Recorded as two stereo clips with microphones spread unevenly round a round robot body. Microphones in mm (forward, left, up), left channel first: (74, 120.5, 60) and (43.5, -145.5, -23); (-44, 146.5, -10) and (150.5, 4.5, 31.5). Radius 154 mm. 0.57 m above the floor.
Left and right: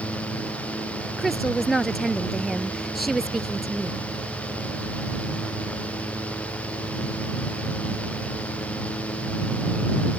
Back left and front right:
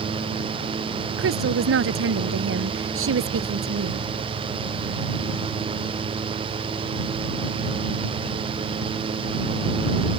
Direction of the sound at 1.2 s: 5° right.